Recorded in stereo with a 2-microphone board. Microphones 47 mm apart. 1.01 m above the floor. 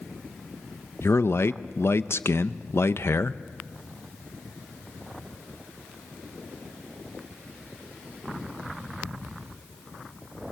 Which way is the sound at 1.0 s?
60° left (ahead or behind).